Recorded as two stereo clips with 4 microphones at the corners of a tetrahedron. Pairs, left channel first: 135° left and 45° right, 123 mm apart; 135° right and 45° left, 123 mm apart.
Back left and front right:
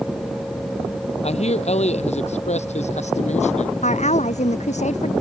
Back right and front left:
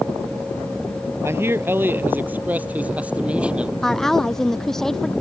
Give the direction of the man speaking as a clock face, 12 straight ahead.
8 o'clock.